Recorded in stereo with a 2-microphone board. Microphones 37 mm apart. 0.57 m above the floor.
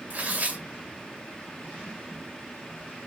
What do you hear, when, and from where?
0.1 s tearing paper: 45° right (ahead or behind), 1.9 m